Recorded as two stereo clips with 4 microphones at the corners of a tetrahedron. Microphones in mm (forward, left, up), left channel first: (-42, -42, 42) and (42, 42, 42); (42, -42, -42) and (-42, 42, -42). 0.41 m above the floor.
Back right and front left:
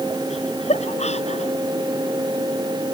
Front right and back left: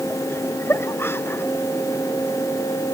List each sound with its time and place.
0.3 s laughter: 115° right